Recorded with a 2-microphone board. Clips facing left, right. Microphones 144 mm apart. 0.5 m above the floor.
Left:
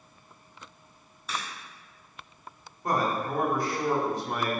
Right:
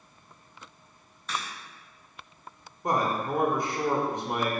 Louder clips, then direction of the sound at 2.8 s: Right 1 dB; 20° right (ahead or behind).